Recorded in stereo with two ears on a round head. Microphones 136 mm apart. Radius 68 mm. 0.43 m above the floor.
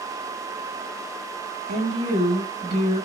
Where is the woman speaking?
50° right (ahead or behind), 2.5 m.